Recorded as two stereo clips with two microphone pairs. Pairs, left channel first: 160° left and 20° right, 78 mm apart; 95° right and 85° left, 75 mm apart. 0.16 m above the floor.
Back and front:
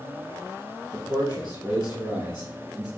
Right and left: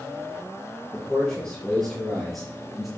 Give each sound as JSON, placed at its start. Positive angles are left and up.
{"t": 0.9, "sound": "a man speaking", "azimuth_deg": -20, "distance_m": 4.0}